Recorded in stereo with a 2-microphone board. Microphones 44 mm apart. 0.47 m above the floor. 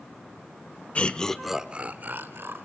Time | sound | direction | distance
0.9 | laughter | 30° left (ahead or behind) | 1.2 m